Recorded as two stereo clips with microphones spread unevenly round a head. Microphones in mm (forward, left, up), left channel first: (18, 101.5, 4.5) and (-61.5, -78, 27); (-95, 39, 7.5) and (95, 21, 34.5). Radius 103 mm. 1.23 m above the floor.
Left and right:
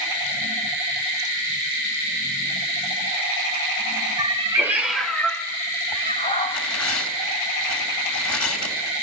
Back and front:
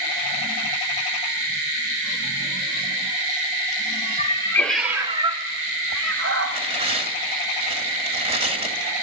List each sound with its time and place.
4.2 s a cat meowing: 140° right, 1.1 m; by 6.6 s 5° right, 2 m
6.5 s tearing paper: 50° left, 3 m